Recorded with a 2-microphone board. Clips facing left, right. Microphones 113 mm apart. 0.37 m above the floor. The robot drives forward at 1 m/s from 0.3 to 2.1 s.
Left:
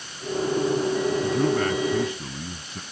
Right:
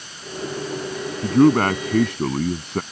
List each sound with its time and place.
1.2 s a man speaking: 60° right (ahead or behind); by 2.8 s 70° right (ahead or behind)